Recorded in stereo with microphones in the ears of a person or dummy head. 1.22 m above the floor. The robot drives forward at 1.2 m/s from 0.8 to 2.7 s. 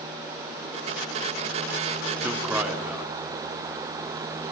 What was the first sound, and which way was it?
A man speaking, centre (ahead or behind).